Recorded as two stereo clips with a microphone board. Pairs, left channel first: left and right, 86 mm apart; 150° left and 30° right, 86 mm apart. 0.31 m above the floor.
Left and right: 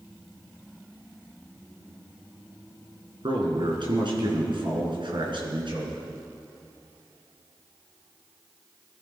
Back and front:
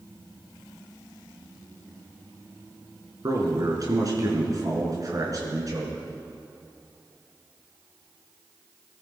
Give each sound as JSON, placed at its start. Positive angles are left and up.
{"t": 3.2, "sound": "a man speaking", "azimuth_deg": -75, "distance_m": 4.0}